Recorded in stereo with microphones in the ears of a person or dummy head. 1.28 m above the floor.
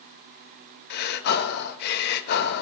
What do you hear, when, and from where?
0.9 s breathing: 60° left (ahead or behind), 1.4 m